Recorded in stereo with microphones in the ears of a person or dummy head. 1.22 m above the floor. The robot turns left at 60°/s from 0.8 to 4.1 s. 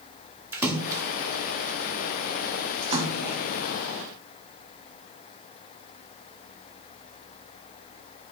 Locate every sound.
0.5 s a splash: 10° right (ahead or behind), 1.3 m; by 3.4 s 15° right (ahead or behind), 1.3 m